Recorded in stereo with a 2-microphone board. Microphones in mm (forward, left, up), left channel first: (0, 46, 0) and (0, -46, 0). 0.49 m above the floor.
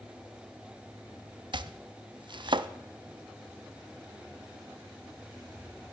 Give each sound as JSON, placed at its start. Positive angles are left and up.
{"t": 1.5, "sound": "chopping", "side_deg": -60, "distance_m": 0.6}